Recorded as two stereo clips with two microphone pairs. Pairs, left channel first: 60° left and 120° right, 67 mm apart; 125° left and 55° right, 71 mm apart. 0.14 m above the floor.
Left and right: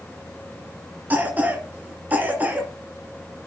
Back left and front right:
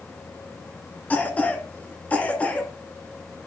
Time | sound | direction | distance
1.1 | a cough | 175° right | 1.5 m